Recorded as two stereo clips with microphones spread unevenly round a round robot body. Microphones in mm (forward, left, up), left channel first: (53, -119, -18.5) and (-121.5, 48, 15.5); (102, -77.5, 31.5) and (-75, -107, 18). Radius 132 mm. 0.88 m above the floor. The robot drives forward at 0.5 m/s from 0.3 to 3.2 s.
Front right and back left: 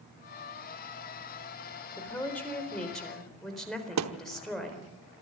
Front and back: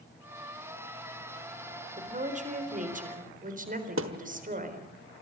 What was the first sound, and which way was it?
A woman speaking, 125° right.